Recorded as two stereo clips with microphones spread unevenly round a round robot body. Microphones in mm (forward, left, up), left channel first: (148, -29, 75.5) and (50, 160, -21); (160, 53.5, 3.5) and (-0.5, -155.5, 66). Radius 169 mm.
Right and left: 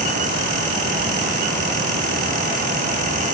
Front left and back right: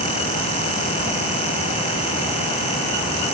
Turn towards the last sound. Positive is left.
No sound to turn to.